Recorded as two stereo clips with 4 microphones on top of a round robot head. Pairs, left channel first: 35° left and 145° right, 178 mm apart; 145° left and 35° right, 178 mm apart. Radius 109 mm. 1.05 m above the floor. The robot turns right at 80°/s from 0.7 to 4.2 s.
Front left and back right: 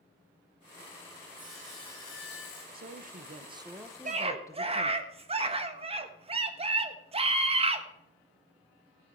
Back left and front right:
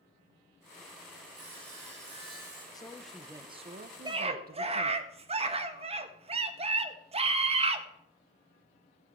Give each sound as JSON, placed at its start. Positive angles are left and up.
{"t": 1.4, "sound": "sawing", "azimuth_deg": -70, "distance_m": 6.0}
{"t": 2.7, "sound": "a woman speaking", "azimuth_deg": -150, "distance_m": 1.1}
{"t": 4.0, "sound": "a scream", "azimuth_deg": -100, "distance_m": 1.5}